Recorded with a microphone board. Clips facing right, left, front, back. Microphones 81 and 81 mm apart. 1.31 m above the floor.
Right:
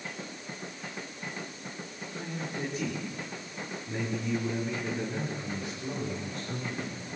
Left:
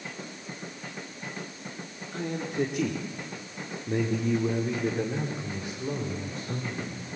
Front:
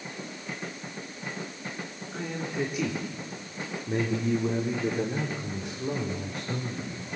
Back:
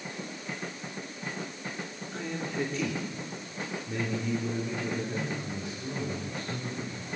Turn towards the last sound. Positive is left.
turn(degrees=25)